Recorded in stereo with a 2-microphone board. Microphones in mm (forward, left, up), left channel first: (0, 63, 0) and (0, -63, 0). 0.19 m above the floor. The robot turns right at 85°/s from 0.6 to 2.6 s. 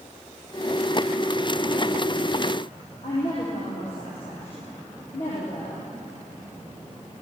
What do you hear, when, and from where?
3.0 s a woman speaking: 55° left (ahead or behind), 7 m